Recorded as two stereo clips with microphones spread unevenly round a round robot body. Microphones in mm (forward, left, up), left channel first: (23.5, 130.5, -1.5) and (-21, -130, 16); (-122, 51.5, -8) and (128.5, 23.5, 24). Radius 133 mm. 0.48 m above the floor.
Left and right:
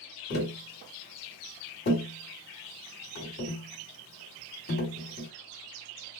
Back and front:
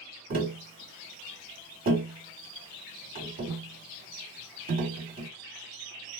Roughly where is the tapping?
Ahead left.